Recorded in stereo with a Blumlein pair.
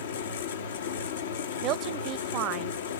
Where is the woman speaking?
35° right, 0.6 m.